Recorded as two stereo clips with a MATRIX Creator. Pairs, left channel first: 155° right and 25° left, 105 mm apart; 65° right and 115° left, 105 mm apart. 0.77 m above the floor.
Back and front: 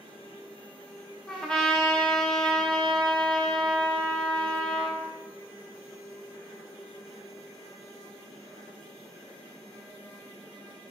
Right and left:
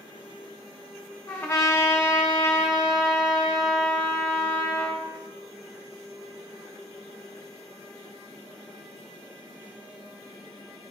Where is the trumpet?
85° right, 1.1 m.